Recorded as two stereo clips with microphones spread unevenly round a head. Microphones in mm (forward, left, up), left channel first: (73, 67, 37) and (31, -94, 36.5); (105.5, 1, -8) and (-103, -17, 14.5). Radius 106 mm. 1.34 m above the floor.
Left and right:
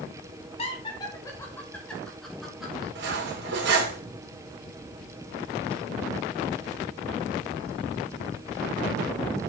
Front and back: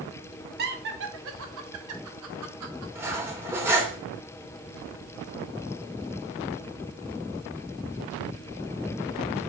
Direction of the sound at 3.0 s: 100° right.